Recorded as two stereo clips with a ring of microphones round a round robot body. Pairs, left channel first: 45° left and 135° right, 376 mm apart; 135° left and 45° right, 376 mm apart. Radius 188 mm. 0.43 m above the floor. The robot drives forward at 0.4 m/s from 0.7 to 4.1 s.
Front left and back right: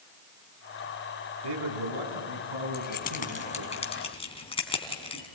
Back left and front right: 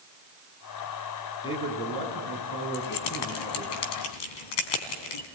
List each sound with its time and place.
1.4 s a man speaking: 150° right, 5 m; by 3.7 s 155° right, 6 m
2.7 s keys jangling: 110° left, 2.5 m; by 5.3 s 120° left, 3 m